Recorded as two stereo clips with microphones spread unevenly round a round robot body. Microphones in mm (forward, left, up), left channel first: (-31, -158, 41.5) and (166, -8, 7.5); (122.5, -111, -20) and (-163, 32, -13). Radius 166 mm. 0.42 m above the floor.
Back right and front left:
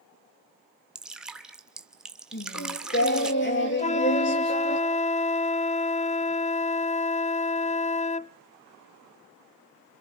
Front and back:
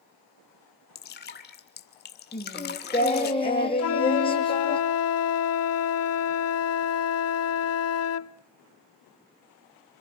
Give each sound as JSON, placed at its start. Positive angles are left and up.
{"t": 0.9, "sound": "dripping", "azimuth_deg": -35, "distance_m": 1.5}
{"t": 2.3, "sound": "singing", "azimuth_deg": -100, "distance_m": 4.0}
{"t": 3.8, "sound": "a flute", "azimuth_deg": -75, "distance_m": 0.5}